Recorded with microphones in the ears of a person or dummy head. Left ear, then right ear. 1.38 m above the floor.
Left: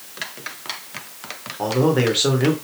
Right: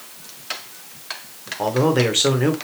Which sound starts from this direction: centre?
A man speaking, at 1.6 s.